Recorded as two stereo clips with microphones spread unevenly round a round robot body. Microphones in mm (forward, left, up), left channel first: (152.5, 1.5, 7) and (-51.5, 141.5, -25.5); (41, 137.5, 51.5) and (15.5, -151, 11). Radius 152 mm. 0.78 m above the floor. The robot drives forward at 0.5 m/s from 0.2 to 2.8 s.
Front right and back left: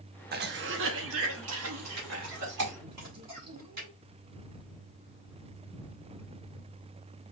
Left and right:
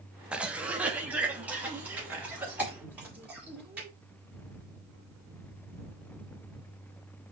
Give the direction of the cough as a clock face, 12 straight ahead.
6 o'clock.